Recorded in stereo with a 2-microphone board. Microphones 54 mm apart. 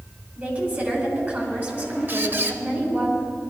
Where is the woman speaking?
30° right (ahead or behind), 3.5 m.